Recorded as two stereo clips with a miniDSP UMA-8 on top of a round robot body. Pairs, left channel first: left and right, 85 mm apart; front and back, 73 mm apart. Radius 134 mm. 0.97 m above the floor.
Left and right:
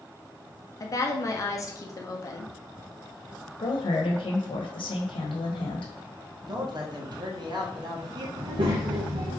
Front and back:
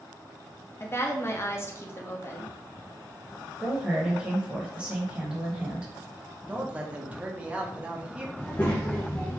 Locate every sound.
0.8 s a woman speaking: 50° left, 1.1 m
3.6 s a woman speaking: 100° left, 1.1 m
6.5 s a man speaking: 110° right, 1.2 m
8.4 s a child speaking: 70° right, 0.7 m